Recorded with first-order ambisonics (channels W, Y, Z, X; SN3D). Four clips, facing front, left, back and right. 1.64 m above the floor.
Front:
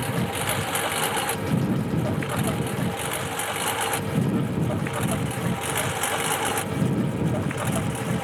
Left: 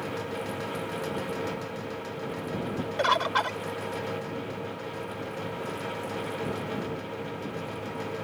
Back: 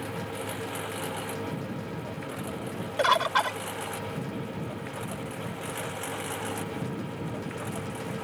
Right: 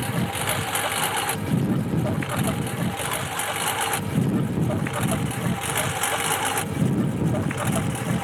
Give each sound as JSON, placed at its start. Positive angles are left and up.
{"t": 0.0, "sound": "a lawn mower", "azimuth_deg": -55}
{"t": 3.0, "sound": "a bird", "azimuth_deg": 145}